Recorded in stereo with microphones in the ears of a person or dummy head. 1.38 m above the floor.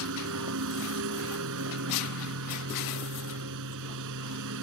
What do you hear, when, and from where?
0.0 s a lawn mower: 70° right (ahead or behind)